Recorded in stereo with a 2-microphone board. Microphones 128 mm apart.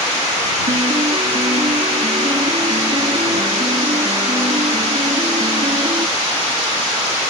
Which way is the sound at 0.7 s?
50° right (ahead or behind).